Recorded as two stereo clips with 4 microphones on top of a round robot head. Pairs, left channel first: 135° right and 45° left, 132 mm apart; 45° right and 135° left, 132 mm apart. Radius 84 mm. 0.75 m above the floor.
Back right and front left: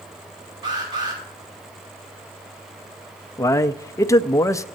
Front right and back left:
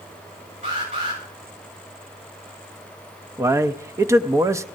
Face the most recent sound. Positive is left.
turn(degrees=180)